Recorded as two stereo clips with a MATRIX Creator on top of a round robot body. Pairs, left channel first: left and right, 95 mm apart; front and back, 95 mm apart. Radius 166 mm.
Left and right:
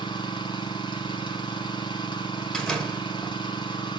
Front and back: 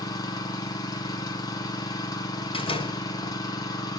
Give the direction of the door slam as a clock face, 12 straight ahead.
12 o'clock.